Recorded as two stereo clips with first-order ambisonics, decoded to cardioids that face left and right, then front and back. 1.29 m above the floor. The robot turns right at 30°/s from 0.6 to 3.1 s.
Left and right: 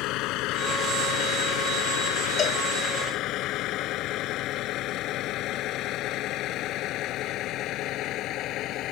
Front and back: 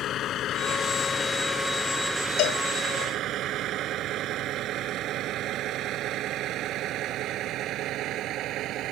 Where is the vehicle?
55° left; by 8.9 s 135° left.